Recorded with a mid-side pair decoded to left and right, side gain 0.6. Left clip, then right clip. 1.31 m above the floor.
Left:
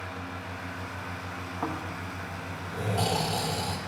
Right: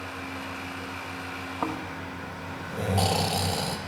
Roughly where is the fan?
Ahead right.